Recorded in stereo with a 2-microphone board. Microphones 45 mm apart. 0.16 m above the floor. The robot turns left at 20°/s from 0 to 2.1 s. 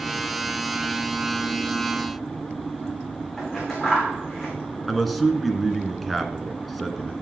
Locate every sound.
3.4 s scissors: 10° left (ahead or behind), 7.5 m
4.9 s a man speaking: centre (ahead or behind), 1.5 m